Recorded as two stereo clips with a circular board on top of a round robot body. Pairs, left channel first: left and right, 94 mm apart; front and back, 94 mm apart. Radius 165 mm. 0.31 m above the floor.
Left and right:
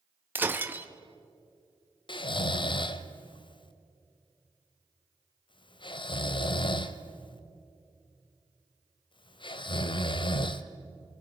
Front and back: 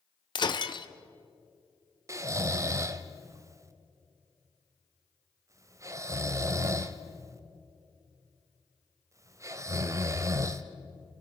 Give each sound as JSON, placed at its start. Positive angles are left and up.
{"t": 0.3, "sound": "breaking glass", "azimuth_deg": -25, "distance_m": 1.2}
{"t": 2.1, "sound": "snoring", "azimuth_deg": 125, "distance_m": 0.9}